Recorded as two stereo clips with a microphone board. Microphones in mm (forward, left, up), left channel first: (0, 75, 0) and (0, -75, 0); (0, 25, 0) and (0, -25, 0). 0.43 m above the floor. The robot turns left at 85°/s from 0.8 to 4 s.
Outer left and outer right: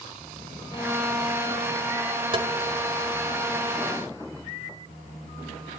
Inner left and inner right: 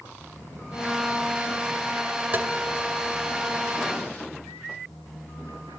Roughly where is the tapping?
Right.